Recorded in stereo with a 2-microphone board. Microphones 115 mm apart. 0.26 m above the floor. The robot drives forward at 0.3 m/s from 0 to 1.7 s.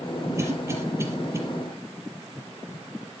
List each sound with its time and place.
0.4 s a cough: 25° right (ahead or behind), 5.5 m